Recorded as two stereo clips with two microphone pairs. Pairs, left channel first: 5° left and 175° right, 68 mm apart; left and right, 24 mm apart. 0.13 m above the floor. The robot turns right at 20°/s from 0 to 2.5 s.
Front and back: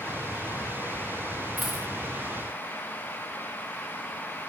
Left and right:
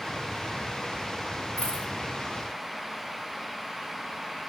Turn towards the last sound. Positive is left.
turn(degrees=115)